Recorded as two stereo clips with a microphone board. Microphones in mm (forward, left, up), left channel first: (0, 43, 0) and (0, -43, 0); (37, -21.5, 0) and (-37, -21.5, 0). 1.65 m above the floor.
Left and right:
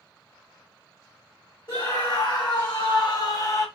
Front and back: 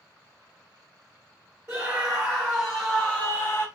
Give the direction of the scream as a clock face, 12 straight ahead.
8 o'clock.